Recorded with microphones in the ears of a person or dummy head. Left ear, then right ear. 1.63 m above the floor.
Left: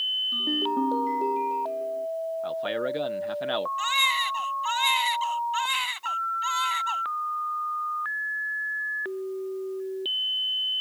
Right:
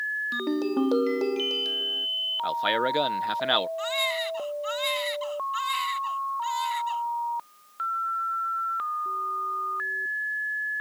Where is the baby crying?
15° left (ahead or behind).